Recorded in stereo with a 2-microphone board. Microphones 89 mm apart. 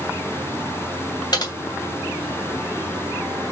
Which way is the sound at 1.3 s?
50° left (ahead or behind).